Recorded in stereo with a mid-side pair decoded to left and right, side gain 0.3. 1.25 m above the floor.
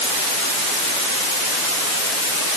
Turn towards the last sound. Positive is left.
No sound to turn to.